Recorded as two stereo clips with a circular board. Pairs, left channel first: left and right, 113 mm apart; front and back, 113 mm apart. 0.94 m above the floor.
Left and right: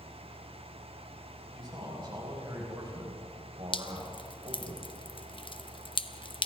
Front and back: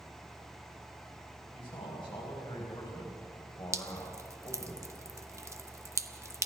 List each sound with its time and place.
1.5 s a man speaking: 40° right, 4.5 m; by 4.7 s 55° right, 3.5 m
3.7 s dripping: 120° left, 0.8 m